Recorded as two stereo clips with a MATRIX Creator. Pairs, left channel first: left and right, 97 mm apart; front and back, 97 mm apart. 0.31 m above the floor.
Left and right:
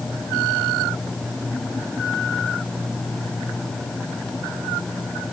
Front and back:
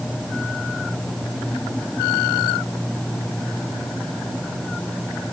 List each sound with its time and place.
Only background noise.